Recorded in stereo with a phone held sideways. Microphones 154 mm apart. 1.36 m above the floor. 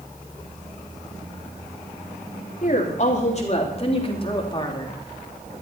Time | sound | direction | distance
2.6 | a woman speaking | 55° left (ahead or behind) | 3 m